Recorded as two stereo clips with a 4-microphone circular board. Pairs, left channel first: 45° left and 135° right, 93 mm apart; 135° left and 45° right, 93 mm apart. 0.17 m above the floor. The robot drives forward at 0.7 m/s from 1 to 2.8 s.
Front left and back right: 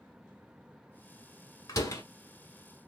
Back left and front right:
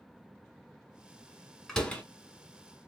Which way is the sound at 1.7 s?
55° left.